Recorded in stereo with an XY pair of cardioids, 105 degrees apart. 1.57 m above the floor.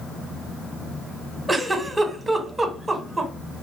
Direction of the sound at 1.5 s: 20° right.